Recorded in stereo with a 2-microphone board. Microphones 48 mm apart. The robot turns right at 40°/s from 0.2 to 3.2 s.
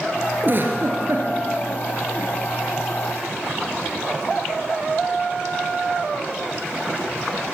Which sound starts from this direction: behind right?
A giggle, at 0.4 s.